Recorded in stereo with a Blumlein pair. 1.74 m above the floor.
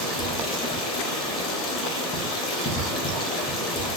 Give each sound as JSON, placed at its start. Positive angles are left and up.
{"t": 0.0, "sound": "running water", "azimuth_deg": 25, "distance_m": 1.0}